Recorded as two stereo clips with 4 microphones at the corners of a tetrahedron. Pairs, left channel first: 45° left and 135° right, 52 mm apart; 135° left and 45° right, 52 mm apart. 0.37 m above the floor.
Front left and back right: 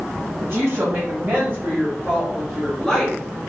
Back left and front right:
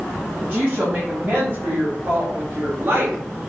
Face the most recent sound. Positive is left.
turn(degrees=-25)